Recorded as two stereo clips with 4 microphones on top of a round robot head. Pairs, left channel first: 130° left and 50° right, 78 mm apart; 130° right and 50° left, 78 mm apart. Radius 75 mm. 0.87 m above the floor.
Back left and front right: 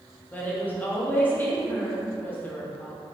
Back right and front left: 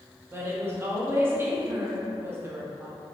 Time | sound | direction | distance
0.3 | a woman speaking | 80° left | 1.0 m